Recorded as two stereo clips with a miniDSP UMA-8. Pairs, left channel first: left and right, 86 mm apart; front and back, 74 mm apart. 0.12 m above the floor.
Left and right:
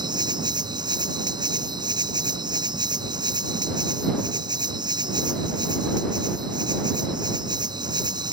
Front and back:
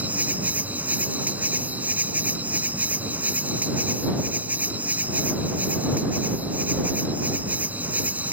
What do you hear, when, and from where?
0.0 s an insect: 115° right